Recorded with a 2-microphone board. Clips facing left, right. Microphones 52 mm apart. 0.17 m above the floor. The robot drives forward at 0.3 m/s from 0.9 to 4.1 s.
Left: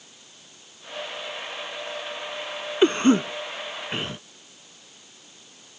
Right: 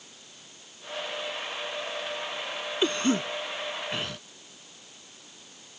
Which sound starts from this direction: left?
A cough, at 2.8 s.